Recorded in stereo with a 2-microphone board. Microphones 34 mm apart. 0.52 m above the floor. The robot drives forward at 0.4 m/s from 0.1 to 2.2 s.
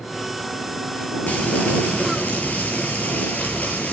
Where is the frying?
50° left (ahead or behind), 8 m.